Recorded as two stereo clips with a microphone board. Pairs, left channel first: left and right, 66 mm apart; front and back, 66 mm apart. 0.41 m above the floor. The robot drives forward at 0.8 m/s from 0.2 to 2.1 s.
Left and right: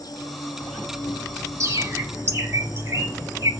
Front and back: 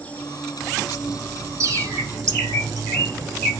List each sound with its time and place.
0.0 s an insect: 70° left, 1.4 m; by 3.6 s 130° left, 1.6 m
1.6 s a bird: 135° right, 1.7 m; by 3.5 s 145° right, 2.0 m